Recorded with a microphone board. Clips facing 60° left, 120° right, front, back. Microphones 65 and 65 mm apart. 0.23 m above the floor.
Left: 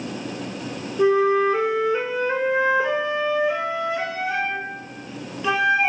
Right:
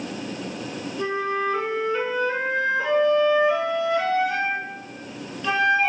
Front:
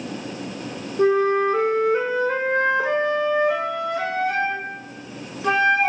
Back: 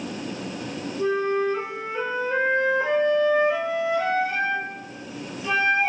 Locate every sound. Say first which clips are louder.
1.0 s a flute: left 8 dB, front 5 dB; 15° right, 0.7 m